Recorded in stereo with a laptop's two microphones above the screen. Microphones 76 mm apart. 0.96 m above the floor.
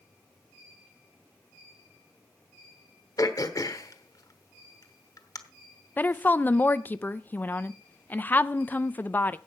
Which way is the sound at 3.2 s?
50° left (ahead or behind).